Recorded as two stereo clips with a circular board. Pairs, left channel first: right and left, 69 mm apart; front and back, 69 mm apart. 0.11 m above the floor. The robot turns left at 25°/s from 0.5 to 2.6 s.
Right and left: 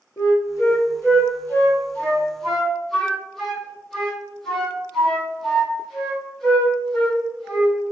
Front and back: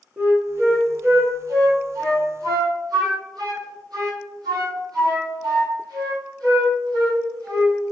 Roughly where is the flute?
Behind right.